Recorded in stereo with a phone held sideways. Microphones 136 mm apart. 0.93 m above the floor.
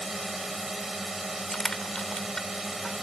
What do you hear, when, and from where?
0.0 s a drone: centre (ahead or behind)
1.5 s crushing: 5° left (ahead or behind)